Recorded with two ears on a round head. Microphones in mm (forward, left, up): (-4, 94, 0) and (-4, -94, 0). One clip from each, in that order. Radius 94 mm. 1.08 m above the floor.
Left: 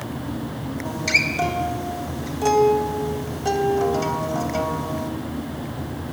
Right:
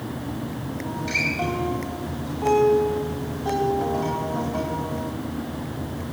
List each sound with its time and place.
0.8 s a guitar: 65° left (ahead or behind), 3 m